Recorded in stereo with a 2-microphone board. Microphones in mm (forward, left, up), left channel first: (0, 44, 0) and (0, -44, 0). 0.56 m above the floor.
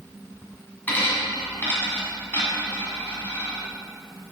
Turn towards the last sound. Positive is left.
turn(degrees=25)  # may be behind; listen again after turning